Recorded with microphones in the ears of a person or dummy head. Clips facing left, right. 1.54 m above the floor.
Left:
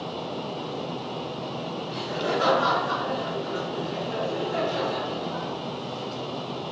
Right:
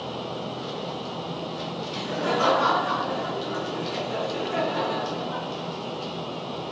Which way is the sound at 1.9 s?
85° right.